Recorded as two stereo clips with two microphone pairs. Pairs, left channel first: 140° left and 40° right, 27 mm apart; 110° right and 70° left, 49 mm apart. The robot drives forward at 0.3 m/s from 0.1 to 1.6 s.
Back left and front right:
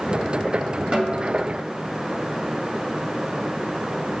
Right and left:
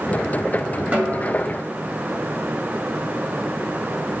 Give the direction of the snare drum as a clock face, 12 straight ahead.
12 o'clock.